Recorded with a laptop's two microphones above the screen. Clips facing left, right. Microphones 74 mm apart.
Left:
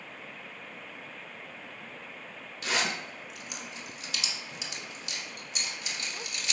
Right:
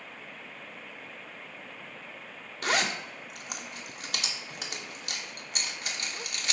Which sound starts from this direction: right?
A zipper, at 2.6 s.